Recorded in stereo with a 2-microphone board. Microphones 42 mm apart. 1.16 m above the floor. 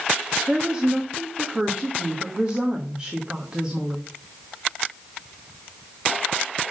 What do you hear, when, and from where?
0.5 s a woman speaking: 20° right (ahead or behind), 1.5 m